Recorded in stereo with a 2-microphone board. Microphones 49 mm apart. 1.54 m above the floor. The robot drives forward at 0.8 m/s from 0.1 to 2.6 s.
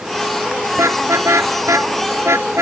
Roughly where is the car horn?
Right.